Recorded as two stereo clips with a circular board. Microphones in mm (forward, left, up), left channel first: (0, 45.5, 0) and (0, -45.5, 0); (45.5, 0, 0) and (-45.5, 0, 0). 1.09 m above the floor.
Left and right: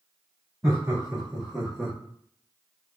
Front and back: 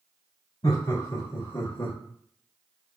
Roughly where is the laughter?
Ahead.